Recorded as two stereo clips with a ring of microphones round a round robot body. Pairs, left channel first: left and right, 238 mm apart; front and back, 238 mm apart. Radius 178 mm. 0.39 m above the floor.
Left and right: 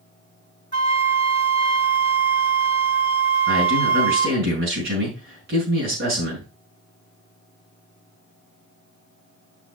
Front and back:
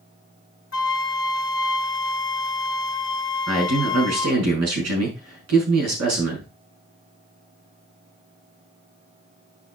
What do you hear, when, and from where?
0.7 s a flute: 35° left, 1.7 m
3.5 s a man speaking: 150° right, 5.5 m